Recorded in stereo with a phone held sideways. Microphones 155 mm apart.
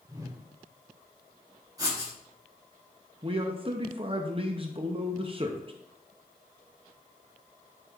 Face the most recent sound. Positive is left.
turn(degrees=-35)  # may be behind; listen again after turning